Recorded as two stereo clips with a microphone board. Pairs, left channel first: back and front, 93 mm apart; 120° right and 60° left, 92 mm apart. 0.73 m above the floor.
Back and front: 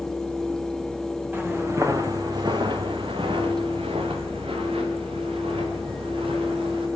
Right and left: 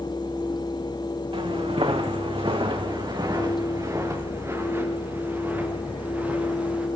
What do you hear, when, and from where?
1.3 s footsteps: 70° left, 3 m; by 6.9 s 15° right, 8 m